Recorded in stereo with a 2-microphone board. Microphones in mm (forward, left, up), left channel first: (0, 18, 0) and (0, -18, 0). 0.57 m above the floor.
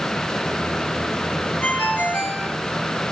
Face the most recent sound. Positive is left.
turn(degrees=60)  # may be behind; listen again after turning